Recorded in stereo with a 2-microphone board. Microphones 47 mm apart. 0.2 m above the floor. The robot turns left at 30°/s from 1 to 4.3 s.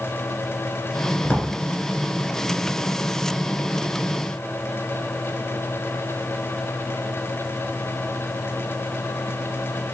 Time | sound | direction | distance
1.2 | a drawer | 40° left (ahead or behind) | 1.1 m